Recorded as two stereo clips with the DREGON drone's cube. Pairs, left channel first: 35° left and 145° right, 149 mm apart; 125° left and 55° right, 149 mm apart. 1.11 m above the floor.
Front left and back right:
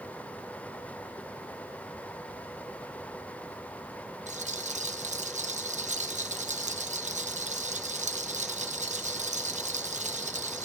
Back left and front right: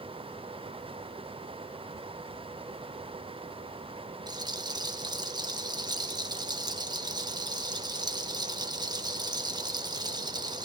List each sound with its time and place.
4.3 s a rattle: 115° right, 1.1 m